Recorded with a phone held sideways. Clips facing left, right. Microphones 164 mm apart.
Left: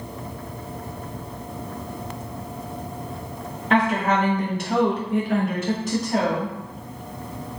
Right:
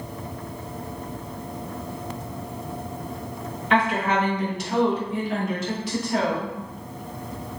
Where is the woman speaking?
40° left (ahead or behind), 1.1 m; by 6.5 s 30° left (ahead or behind), 1.0 m.